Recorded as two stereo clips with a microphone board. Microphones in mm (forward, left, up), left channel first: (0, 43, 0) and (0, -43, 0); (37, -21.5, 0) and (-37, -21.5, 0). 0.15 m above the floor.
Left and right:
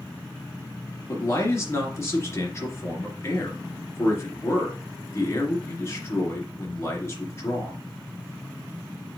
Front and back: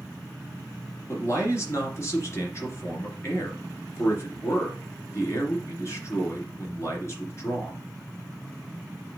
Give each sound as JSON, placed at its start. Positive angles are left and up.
{"t": 1.1, "sound": "a man speaking", "azimuth_deg": 40, "distance_m": 2.5}